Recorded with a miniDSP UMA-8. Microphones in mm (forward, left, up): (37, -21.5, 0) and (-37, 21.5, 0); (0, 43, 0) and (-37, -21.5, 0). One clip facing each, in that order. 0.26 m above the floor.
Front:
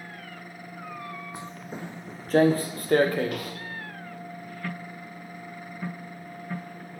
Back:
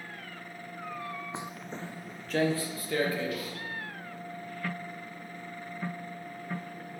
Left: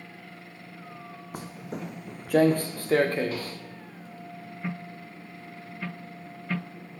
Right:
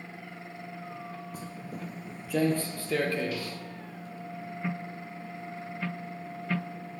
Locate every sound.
1.3 s footsteps: 85° left, 0.6 m; by 3.5 s 5° left, 2 m